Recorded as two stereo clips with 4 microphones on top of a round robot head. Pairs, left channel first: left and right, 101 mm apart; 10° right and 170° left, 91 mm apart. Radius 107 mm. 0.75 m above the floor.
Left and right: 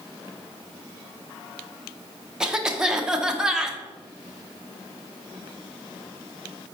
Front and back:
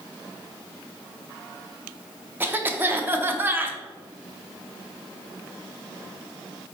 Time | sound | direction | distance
2.4 | a cough | 165° right | 0.7 m